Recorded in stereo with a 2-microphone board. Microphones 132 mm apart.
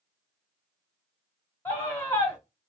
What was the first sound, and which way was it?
A scream, 15° left (ahead or behind).